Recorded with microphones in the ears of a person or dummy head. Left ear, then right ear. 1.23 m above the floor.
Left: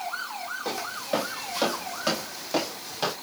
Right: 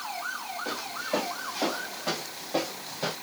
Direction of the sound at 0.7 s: 70° left (ahead or behind).